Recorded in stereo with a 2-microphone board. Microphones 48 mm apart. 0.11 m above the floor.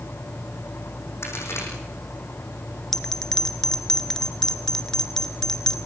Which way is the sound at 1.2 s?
65° left (ahead or behind).